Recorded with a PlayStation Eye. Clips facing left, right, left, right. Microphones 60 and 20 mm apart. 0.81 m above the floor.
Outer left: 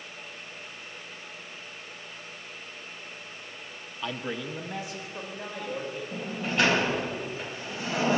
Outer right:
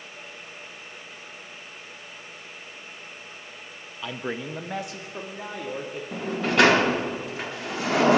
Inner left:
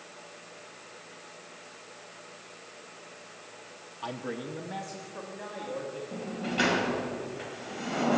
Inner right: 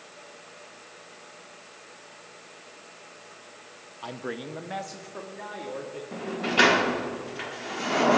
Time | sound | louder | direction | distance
4.0 | a man speaking | outer right 2 dB, inner right 1 dB | centre (ahead or behind) | 0.6 m
6.1 | a sliding door | outer right 8 dB, inner right 8 dB | 70° right (ahead or behind) | 0.7 m